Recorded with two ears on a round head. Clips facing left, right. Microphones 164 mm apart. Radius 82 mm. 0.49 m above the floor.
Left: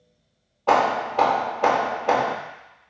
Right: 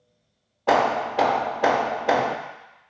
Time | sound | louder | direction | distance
0.7 | hammering | even | 10° right (ahead or behind) | 0.6 m